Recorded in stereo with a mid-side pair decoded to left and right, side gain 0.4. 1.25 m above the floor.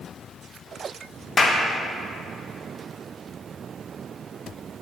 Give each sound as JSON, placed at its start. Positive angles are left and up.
{"t": 1.4, "sound": "a clap", "azimuth_deg": 35, "distance_m": 0.9}